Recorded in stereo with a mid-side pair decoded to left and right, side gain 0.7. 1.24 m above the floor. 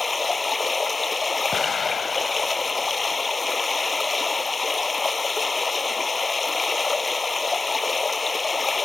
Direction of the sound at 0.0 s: 20° left.